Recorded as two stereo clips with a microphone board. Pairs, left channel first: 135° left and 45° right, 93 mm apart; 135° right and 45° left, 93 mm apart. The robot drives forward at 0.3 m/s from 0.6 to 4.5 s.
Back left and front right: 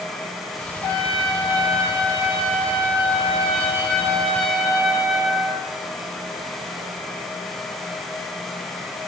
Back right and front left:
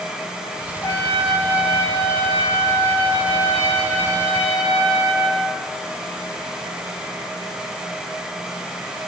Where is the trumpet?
160° left, 7 m; by 5.7 s 165° left, 8 m.